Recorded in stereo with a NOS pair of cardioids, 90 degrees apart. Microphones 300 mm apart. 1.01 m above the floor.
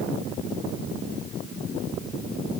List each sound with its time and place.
Only background noise.